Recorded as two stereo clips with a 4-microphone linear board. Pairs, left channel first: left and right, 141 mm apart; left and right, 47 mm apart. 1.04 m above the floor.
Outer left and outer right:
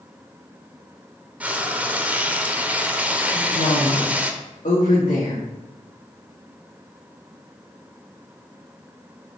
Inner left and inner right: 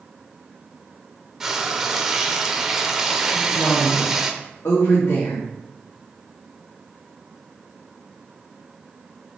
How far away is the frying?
About 0.9 m.